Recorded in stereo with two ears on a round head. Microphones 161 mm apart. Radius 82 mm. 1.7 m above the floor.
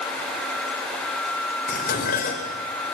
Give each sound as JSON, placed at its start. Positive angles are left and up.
{"t": 1.7, "sound": "dishes clattering", "side_deg": 50, "distance_m": 4.5}